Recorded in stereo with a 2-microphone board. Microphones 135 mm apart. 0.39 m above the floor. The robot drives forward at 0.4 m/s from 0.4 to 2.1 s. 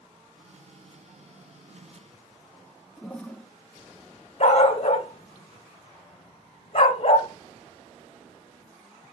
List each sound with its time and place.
3.0 s a toilet flushing: 10° left (ahead or behind), 0.5 m
4.4 s a dog barking: 60° left (ahead or behind), 0.9 m